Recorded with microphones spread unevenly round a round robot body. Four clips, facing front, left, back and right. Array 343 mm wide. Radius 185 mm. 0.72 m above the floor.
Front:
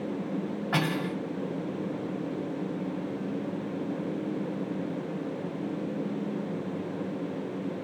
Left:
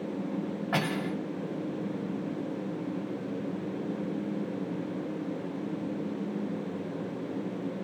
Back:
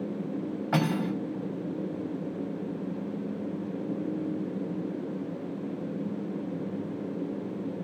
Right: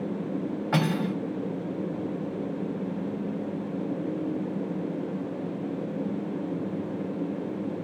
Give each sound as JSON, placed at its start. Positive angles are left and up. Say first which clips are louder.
{"t": 0.7, "sound": "cutlery clinking", "louder": "right 4 dB, back 2 dB", "azimuth_deg": -135, "distance_m": 3.0}